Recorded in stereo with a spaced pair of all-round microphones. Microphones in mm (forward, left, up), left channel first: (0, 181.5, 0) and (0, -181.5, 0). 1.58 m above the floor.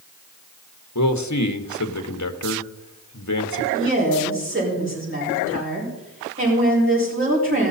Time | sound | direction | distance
0.9 | a man speaking | 50° left (ahead or behind) | 1.1 m
3.7 | a woman speaking | 35° right (ahead or behind) | 5 m